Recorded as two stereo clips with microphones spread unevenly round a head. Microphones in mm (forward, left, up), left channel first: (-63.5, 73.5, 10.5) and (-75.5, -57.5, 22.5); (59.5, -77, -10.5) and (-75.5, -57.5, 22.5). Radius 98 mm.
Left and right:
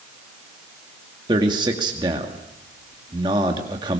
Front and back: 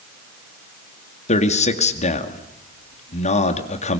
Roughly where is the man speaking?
Ahead right.